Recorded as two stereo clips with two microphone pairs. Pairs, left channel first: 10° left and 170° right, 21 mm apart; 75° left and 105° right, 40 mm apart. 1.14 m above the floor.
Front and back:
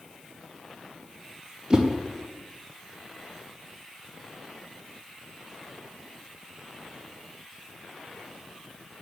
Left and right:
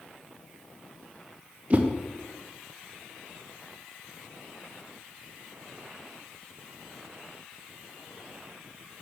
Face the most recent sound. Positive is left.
turn(degrees=-125)